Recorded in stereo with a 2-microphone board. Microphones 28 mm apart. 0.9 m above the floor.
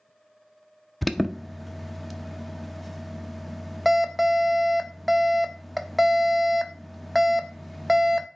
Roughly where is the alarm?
Centre.